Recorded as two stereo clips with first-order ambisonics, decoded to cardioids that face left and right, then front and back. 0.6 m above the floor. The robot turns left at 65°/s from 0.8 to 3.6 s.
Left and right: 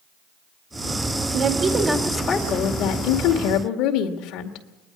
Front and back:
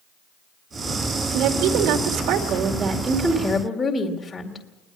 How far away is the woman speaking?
About 2.5 m.